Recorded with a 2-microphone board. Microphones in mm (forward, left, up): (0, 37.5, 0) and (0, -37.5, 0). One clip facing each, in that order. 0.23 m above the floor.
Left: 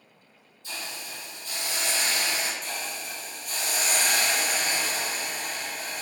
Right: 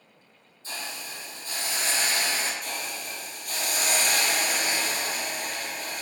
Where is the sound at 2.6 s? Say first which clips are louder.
Even; 55° right (ahead or behind), 2 m.